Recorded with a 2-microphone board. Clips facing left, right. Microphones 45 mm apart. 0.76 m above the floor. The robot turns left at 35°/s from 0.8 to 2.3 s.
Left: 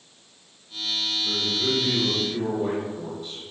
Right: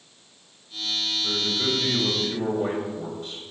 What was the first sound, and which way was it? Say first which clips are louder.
A man speaking: even; 85° right.